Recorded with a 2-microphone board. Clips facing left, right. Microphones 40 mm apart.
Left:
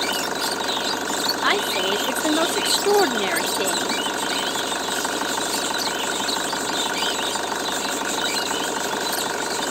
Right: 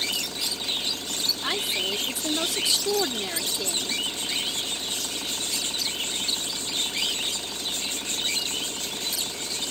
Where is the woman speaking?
45° left (ahead or behind).